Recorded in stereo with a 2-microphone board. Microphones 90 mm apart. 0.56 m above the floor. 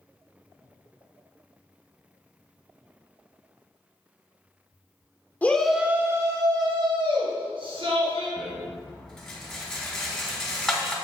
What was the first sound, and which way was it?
A shout, 20° left (ahead or behind).